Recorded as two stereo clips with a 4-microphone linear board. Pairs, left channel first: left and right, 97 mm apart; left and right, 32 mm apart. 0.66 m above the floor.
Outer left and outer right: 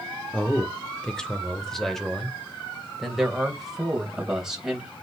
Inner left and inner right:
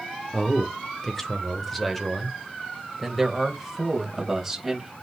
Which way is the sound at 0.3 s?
15° left (ahead or behind).